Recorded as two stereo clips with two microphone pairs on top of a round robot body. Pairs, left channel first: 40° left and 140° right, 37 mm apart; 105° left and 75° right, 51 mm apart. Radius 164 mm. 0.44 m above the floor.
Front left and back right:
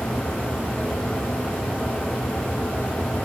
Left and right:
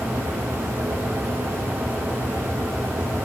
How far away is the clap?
I don't hear a clap.